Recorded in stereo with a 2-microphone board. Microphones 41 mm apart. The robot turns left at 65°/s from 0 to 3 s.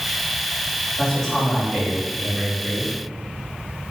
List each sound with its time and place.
1.0 s a man speaking: 35° left, 1.3 m; by 3.0 s 95° right, 1.3 m